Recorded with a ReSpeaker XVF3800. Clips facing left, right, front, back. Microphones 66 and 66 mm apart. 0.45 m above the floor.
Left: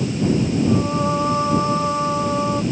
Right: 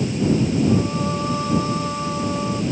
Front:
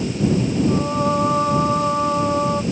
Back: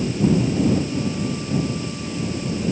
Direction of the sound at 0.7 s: 25° left.